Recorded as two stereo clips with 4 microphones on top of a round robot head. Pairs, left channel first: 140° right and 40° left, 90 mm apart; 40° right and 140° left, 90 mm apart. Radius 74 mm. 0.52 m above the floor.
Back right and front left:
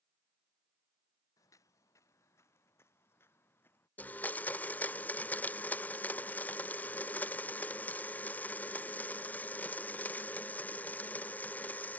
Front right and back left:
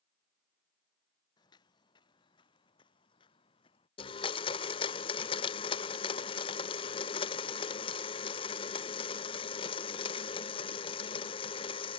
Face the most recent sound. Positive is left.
turn(degrees=-65)